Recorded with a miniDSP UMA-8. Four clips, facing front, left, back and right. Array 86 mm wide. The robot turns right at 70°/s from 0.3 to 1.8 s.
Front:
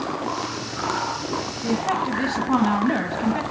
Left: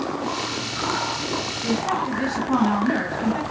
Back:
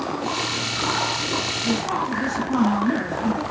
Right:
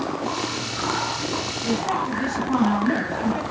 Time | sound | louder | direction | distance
1.6 | a woman speaking | even, front 2 dB | 5° left | 1.6 m